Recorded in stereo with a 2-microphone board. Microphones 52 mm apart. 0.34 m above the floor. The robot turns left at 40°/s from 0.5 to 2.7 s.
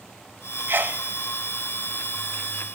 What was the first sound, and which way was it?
A sneeze, 45° right (ahead or behind).